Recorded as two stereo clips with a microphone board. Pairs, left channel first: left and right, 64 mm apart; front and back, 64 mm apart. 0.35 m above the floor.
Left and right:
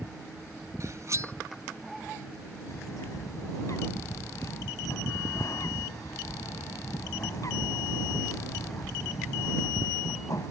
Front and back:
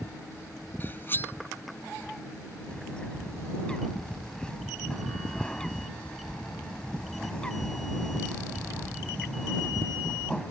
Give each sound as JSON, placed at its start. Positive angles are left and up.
{"t": 0.8, "sound": "cutlery clinking", "azimuth_deg": -55}
{"t": 2.7, "sound": "a bird", "azimuth_deg": 75}